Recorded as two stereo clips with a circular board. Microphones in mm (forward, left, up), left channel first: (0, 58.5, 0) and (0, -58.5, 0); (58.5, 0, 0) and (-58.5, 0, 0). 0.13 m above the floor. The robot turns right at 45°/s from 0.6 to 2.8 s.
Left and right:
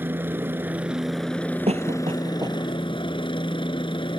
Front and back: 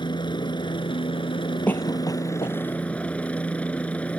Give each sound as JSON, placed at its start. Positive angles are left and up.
{"t": 0.0, "sound": "a helicopter", "azimuth_deg": -25}
{"t": 1.7, "sound": "a cough", "azimuth_deg": -75}